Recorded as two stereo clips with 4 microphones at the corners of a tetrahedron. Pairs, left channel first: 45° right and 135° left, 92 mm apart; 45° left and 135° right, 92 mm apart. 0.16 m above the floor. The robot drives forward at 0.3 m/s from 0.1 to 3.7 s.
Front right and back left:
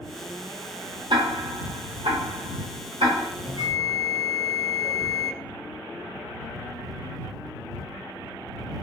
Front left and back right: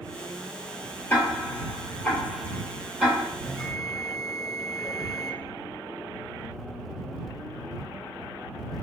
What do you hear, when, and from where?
1.1 s ticking: 110° left, 0.8 m; by 3.3 s 140° left, 1.2 m
3.4 s a bell: 130° left, 0.7 m; by 5.3 s 135° left, 0.7 m